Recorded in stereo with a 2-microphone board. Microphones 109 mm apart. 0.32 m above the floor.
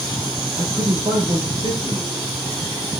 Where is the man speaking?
30° right (ahead or behind), 5 m.